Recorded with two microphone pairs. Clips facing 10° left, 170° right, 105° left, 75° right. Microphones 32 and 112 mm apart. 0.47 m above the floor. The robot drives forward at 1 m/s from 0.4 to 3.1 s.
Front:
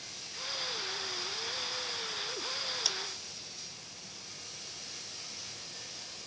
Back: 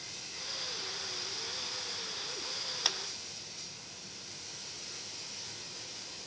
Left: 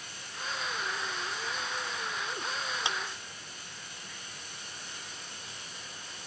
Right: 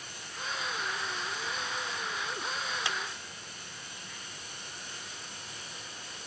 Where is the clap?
155° left, 0.6 m; by 3.0 s 165° left, 0.7 m.